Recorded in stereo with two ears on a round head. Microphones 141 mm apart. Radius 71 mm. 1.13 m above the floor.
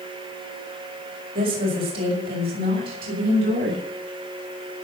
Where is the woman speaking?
65° right (ahead or behind), 6.5 m; by 3.8 s 60° right (ahead or behind), 8 m.